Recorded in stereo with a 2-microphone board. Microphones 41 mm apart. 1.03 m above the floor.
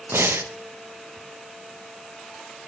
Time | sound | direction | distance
0.1 | breathing | 75° right (ahead or behind) | 0.6 m